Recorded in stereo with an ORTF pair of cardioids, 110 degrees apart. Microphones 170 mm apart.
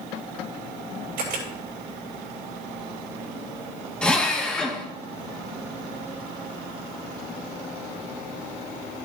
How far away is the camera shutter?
About 6.5 m.